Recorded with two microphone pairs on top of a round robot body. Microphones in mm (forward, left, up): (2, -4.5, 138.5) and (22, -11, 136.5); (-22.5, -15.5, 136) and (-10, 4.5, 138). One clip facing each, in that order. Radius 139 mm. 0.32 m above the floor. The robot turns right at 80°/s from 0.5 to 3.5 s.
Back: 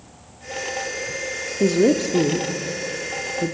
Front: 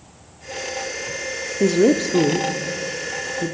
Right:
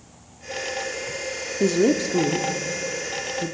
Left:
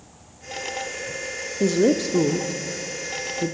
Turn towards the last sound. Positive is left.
turn(degrees=85)